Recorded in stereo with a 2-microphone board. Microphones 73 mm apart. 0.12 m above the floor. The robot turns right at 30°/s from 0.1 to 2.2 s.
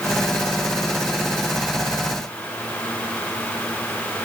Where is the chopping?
No chopping in this recording.